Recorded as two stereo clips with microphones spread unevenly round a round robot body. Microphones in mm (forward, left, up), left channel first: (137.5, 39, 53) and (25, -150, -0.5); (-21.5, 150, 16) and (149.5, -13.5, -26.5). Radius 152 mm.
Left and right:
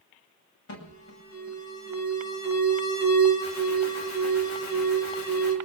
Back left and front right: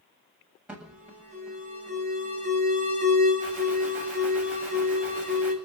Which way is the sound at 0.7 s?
40° left.